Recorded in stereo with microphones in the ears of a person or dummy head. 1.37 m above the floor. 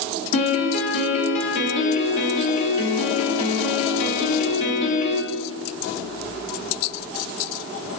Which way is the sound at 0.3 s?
30° left (ahead or behind).